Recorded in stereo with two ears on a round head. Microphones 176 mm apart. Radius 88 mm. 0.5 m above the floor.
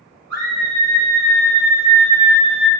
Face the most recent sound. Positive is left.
turn(degrees=-40)  # may be behind; listen again after turning